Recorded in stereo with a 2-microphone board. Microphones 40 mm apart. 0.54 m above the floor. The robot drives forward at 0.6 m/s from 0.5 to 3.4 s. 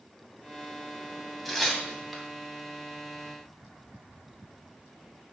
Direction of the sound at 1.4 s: 5° left (ahead or behind).